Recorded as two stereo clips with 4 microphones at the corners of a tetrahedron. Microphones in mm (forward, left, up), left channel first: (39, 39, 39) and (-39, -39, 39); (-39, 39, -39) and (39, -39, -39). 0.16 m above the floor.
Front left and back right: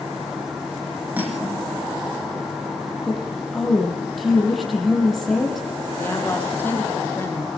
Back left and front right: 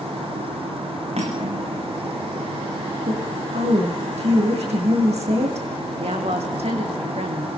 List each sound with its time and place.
1.2 s cutlery clinking: 60° right, 5 m
3.1 s a woman speaking: 45° right, 7.5 m
6.0 s a woman speaking: 25° right, 5.5 m